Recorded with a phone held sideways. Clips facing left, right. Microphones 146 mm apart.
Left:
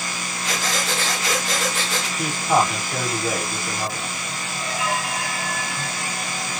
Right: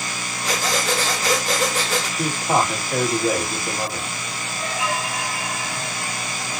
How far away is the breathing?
About 1.5 m.